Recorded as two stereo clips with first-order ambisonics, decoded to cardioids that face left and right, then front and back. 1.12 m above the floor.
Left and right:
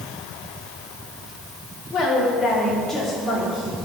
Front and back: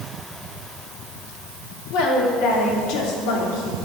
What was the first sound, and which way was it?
A woman speaking, 30° left.